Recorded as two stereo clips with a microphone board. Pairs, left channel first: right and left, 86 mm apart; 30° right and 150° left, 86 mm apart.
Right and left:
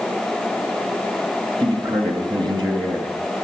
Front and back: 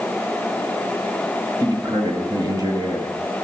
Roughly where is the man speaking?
Left.